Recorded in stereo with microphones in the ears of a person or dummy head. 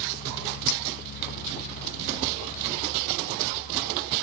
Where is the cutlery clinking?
85° left.